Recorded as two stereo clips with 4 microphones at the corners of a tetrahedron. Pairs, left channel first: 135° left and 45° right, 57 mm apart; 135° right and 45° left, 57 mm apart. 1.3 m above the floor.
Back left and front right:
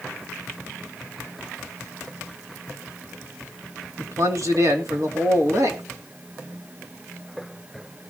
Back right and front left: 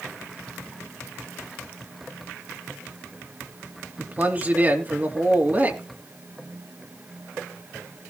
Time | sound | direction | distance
4.0 | a man speaking | 15° right | 2.5 m